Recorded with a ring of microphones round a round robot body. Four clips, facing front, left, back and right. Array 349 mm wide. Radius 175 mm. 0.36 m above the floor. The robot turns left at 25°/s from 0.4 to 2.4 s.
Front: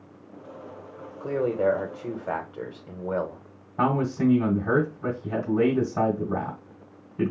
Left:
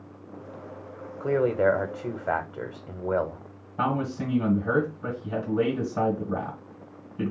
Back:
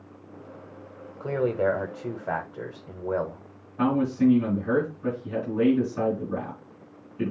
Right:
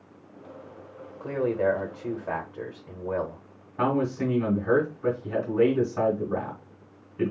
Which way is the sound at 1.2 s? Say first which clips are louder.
Left 3 dB, front 1 dB; 105° left.